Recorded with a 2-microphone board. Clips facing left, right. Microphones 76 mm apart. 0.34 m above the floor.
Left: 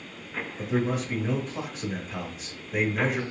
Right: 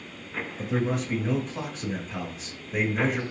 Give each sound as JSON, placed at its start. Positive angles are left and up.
{"t": 0.6, "sound": "a man speaking", "side_deg": 0, "distance_m": 1.2}